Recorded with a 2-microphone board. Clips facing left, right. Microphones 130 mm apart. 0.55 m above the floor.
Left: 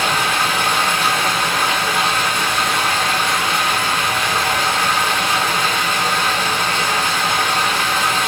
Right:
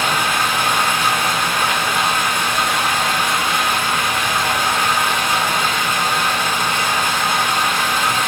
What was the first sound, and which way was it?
Running water, 10° left (ahead or behind).